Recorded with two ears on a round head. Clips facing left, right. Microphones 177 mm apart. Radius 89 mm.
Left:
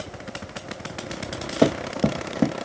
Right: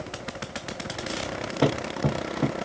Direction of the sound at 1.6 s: 65° left (ahead or behind).